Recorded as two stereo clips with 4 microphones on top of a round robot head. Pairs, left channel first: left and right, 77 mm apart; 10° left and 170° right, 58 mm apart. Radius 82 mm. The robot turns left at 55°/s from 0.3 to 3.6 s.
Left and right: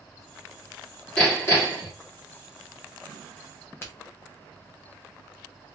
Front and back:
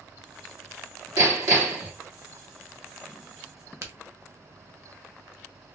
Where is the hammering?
170° left, 1.8 m; by 1.9 s 125° left, 1.8 m.